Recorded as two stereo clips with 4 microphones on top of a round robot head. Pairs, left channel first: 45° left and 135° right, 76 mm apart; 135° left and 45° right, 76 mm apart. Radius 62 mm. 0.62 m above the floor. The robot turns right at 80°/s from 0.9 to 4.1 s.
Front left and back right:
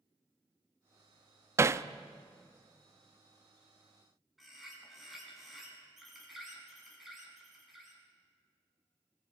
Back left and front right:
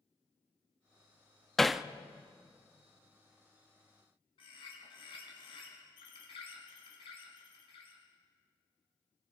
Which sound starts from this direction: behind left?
A bird, at 4.4 s.